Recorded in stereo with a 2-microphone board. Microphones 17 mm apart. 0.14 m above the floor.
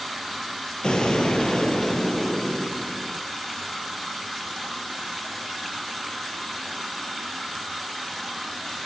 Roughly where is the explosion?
Left.